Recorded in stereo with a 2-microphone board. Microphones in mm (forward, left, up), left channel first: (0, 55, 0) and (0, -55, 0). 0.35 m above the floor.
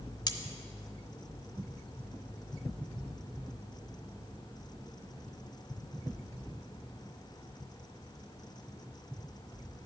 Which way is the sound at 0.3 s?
40° left (ahead or behind).